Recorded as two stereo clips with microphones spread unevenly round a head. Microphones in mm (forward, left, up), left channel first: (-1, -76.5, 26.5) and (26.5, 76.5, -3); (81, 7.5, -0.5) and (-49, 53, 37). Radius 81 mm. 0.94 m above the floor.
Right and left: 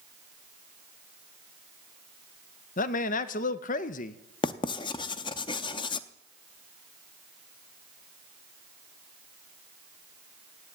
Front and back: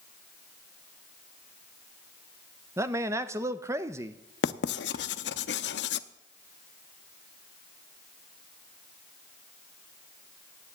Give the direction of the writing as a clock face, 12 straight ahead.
1 o'clock.